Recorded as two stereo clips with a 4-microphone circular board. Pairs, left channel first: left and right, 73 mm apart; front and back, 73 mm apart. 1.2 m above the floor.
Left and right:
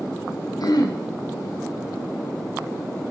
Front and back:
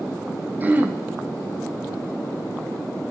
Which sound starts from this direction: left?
Throat clearing, at 0.6 s.